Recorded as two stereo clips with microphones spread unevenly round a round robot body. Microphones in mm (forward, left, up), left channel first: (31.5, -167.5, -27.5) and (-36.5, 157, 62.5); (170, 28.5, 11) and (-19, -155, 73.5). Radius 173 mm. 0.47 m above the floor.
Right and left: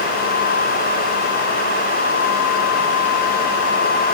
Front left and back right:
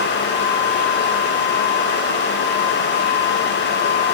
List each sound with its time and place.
Only background noise.